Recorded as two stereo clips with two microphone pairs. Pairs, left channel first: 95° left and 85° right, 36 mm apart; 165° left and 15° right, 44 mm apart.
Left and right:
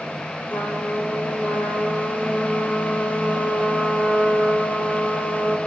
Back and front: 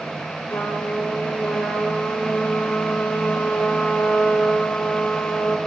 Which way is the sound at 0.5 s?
130° left.